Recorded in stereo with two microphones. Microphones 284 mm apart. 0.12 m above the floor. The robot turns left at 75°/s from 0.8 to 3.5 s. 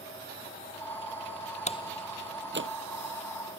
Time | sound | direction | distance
1.7 | a door slam | 25° left (ahead or behind) | ?